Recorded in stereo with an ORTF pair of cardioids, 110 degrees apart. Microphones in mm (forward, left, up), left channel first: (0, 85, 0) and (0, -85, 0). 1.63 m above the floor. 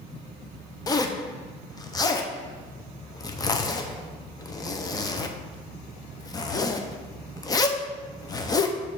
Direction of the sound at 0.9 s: 25° left.